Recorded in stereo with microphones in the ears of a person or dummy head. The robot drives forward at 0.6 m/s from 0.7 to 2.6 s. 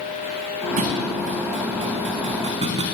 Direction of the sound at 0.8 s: 50° right (ahead or behind).